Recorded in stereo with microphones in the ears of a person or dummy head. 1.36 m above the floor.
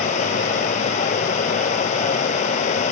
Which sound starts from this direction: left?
Running water, at 0.0 s.